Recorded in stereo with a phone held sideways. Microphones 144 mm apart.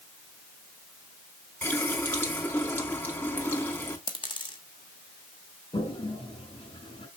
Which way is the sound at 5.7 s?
40° left (ahead or behind).